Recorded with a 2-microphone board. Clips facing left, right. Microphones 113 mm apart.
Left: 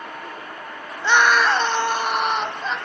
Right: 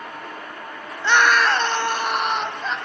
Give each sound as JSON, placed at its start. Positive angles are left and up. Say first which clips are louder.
{"t": 1.0, "sound": "a scream", "louder": "even", "side_deg": 10, "distance_m": 1.1}